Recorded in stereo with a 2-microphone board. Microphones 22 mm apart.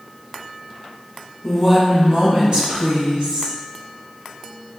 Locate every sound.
1.4 s a woman speaking: 15° left (ahead or behind), 1.0 m; by 3.5 s 60° right (ahead or behind), 2.5 m